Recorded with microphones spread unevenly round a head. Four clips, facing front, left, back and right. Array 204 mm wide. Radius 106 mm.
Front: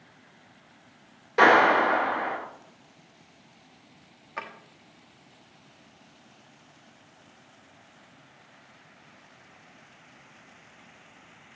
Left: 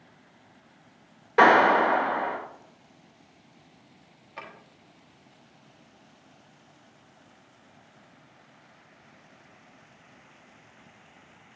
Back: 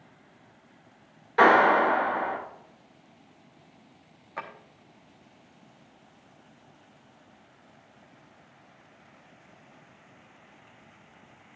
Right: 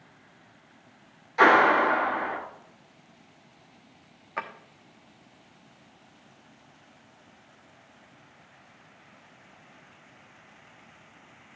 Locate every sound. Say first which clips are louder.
1.4 s a clap: left 1 dB, even; 85° left, 4.5 m
4.4 s a drawer: right 8 dB, even; 80° right, 1.1 m